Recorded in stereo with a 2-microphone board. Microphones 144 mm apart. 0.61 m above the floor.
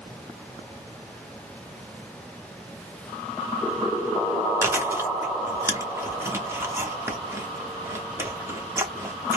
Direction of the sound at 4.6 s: 15° right (ahead or behind).